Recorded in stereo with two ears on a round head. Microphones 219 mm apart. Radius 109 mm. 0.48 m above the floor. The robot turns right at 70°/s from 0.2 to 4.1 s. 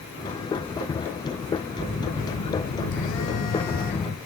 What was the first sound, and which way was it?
A phone buzzing, straight ahead.